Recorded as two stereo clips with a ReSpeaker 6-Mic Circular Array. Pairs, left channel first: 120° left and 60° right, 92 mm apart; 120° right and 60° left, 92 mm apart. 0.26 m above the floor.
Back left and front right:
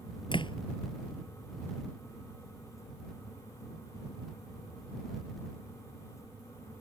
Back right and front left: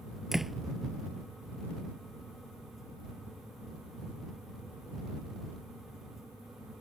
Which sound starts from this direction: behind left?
A door slam, at 0.3 s.